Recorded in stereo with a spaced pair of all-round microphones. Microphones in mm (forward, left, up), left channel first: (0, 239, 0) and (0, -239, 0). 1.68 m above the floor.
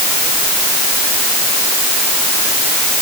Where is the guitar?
No guitar in this recording.